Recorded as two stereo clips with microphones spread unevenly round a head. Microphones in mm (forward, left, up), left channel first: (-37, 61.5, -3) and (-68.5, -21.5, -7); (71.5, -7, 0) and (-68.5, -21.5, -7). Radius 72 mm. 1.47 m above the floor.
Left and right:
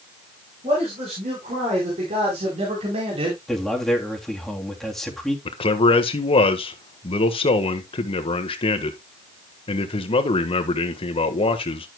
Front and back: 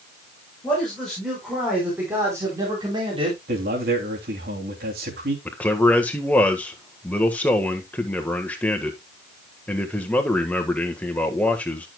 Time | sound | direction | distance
0.6 | a man speaking | 80° right | 6 m
3.5 | a man speaking | 155° left | 3 m
5.5 | a man speaking | 85° left | 1.5 m